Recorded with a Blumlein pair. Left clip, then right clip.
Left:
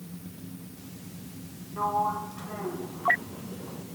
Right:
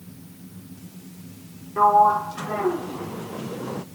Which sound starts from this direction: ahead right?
A sliding door, at 1.8 s.